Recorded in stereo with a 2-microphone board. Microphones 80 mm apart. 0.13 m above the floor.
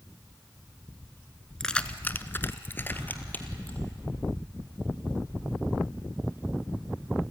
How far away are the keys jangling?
About 1.0 m.